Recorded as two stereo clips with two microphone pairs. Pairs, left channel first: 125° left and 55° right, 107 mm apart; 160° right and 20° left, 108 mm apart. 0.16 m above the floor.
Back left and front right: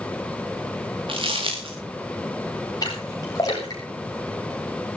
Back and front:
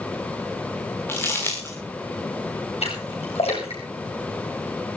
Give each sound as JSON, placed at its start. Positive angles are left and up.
{"t": 1.1, "sound": "crumpling", "azimuth_deg": -90, "distance_m": 6.5}
{"t": 2.8, "sound": "a splash", "azimuth_deg": 180, "distance_m": 8.5}